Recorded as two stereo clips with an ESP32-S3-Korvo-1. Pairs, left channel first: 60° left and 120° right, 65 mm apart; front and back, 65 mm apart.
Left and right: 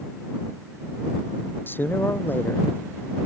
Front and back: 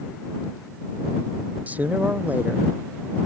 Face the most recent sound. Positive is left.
turn(degrees=115)